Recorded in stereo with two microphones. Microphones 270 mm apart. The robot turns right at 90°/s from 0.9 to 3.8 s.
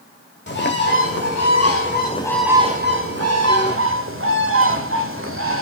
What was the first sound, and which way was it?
A bird, 45° left.